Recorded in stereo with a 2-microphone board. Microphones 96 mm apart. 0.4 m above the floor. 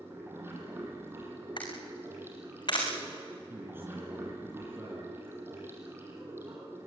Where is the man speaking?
25° right (ahead or behind), 4.5 m.